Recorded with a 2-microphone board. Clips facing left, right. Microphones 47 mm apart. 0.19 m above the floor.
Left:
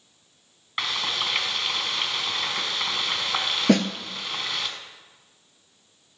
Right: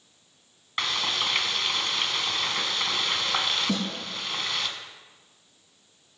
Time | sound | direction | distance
0.8 | frying | 5° left (ahead or behind) | 1.3 m
3.7 | a snare drum | 80° left | 0.9 m